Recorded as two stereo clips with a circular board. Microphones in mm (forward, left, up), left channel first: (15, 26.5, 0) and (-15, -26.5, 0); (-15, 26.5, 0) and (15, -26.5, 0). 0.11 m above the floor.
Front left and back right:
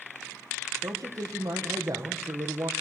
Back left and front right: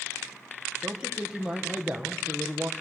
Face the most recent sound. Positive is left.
turn(degrees=-135)